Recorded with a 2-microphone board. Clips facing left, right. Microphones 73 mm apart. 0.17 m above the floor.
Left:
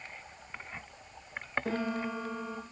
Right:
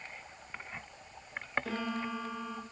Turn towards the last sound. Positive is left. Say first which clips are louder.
# left 3 dB
turn(degrees=30)  # may be behind; listen again after turning